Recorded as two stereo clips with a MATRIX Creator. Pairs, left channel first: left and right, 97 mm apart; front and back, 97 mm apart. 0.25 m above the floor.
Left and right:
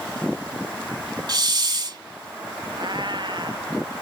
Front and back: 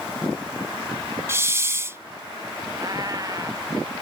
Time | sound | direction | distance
1.3 | a hiss | 120° right | ?
2.8 | a cat meowing | 130° right | ?